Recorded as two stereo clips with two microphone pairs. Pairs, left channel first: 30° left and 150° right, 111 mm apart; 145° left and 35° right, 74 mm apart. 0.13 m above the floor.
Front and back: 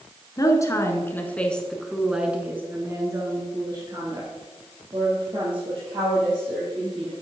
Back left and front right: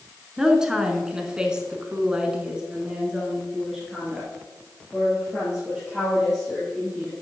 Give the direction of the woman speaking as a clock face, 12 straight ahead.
11 o'clock.